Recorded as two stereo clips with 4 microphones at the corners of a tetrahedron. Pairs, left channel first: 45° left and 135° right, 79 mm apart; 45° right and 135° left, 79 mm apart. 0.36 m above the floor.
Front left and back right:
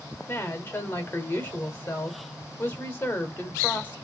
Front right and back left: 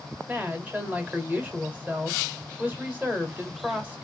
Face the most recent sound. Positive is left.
turn(degrees=85)